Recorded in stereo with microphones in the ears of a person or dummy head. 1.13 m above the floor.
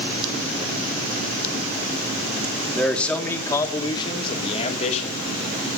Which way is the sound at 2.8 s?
Centre (ahead or behind).